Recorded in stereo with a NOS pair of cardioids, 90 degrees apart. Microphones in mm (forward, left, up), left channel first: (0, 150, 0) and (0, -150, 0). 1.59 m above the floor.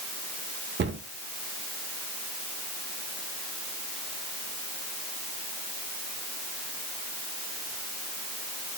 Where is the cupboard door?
35° right, 2.5 m.